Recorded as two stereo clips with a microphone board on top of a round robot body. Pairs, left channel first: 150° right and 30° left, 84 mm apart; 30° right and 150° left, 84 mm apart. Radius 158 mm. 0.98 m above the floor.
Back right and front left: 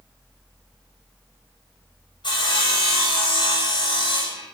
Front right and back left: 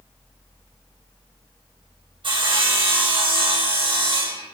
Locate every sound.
2.2 s sawing: 175° left, 6 m